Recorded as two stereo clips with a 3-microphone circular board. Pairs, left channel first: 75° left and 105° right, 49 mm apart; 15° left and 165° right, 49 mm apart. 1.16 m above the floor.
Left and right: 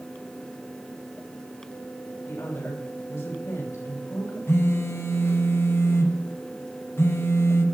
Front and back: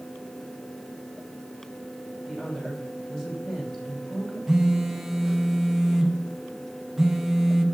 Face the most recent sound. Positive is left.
turn(degrees=110)